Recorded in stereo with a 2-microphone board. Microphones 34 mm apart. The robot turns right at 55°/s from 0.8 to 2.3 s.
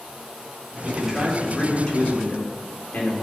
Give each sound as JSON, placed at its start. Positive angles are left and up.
{"t": 0.8, "sound": "a man speaking", "azimuth_deg": -30, "distance_m": 3.5}